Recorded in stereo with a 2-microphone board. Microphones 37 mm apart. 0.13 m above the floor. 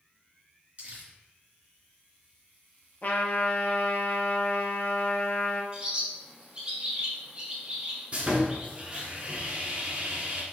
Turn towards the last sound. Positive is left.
turn(degrees=-35)  # may be behind; listen again after turning